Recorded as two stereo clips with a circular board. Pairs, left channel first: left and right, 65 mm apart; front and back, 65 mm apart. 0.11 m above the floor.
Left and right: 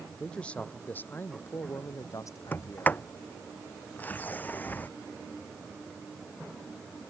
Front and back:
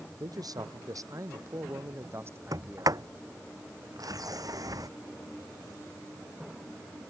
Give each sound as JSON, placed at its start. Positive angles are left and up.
{"t": 0.2, "sound": "a man speaking", "azimuth_deg": 165}
{"t": 2.5, "sound": "a sliding door", "azimuth_deg": 155}